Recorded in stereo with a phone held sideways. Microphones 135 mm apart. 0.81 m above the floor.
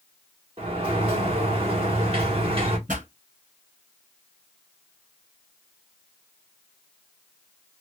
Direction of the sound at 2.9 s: 80° right.